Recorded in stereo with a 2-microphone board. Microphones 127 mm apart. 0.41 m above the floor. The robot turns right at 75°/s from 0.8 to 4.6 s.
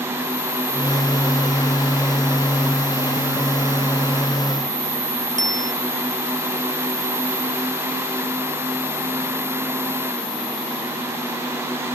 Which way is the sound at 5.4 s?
75° right (ahead or behind).